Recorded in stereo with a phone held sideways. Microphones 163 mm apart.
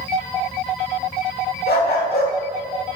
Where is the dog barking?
80° left, 1.7 m.